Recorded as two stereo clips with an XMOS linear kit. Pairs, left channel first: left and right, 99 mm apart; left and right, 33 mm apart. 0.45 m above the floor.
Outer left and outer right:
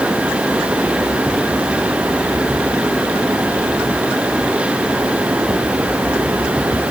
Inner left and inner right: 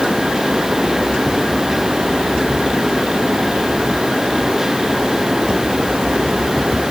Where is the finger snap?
No finger snap in this recording.